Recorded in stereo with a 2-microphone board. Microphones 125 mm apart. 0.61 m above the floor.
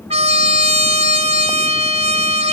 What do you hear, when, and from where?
0.1 s a trumpet: 60° right (ahead or behind), 1.2 m